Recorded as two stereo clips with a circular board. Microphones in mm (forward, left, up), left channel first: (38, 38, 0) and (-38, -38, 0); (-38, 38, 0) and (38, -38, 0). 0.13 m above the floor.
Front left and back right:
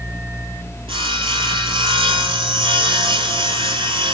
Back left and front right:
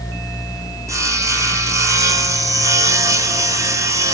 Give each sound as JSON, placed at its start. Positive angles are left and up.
{"t": 0.9, "sound": "sawing", "azimuth_deg": -105, "distance_m": 1.4}